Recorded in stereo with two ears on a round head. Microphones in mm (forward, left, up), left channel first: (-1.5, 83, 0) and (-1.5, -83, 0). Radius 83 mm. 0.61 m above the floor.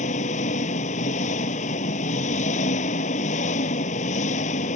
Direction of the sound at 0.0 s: 40° left (ahead or behind).